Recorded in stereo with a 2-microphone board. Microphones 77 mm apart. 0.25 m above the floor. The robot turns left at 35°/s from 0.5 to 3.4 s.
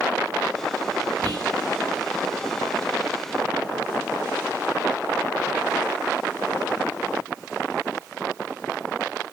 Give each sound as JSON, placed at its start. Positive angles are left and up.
{"t": 1.2, "sound": "whispering", "side_deg": -70, "distance_m": 6.0}